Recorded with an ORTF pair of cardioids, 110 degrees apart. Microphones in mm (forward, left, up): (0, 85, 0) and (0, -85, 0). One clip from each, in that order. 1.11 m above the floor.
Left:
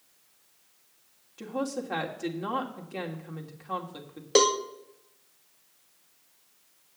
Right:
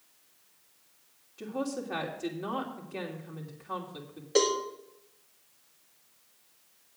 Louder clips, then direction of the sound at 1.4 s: Left 2 dB; 20° left.